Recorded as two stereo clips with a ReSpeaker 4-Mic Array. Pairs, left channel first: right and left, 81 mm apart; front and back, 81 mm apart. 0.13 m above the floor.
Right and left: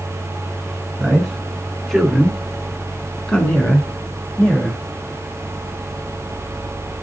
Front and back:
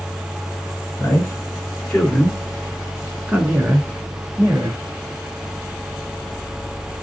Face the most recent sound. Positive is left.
turn(degrees=-160)